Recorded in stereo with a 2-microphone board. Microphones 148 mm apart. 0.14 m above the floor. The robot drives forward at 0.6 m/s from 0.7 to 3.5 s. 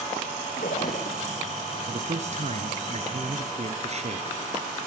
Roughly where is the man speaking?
Right.